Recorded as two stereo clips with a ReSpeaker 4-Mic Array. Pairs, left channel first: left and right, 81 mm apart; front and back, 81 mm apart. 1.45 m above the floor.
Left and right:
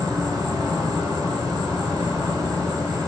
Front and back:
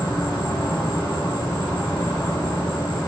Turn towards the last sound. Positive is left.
turn(degrees=-60)